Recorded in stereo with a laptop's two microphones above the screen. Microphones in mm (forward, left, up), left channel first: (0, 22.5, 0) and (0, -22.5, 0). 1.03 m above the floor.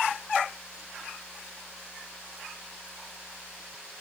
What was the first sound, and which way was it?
Only background noise.